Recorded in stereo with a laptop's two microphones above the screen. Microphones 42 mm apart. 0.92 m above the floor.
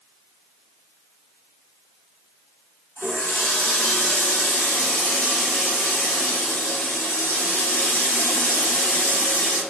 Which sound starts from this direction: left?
A running tap, at 3.0 s.